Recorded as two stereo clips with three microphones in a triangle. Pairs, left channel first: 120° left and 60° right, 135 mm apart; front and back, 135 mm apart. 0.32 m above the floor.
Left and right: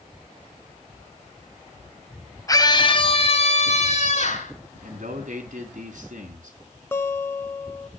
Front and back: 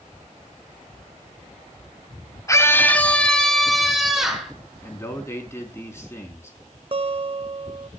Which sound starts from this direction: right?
A man speaking, at 4.8 s.